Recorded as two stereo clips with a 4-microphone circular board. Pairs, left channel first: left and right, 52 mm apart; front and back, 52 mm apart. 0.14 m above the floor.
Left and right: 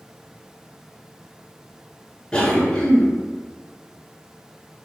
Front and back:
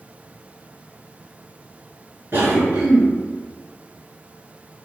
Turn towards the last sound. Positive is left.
turn(degrees=165)